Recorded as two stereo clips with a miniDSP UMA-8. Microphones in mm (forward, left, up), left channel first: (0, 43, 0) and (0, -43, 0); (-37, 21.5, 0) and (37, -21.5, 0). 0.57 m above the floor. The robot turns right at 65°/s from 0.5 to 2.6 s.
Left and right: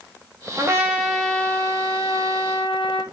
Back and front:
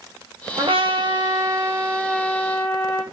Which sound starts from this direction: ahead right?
A trumpet, at 0.6 s.